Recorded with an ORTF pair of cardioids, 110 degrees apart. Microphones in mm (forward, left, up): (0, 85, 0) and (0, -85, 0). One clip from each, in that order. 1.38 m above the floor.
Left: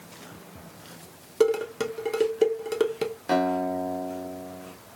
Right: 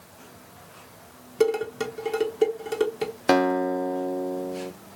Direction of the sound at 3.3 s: 60° right.